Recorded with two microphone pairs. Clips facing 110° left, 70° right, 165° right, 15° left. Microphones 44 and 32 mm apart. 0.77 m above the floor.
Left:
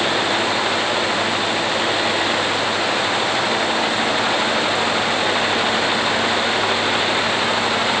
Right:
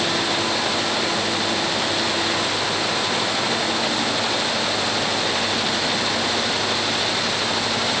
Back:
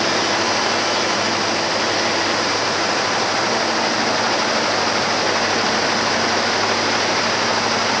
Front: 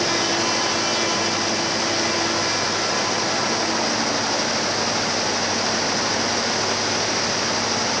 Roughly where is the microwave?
I don't hear a microwave.